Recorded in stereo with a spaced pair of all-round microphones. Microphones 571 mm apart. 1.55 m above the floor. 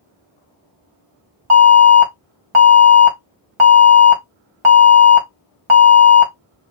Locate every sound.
1.5 s an alarm: 55° right (ahead or behind), 2 m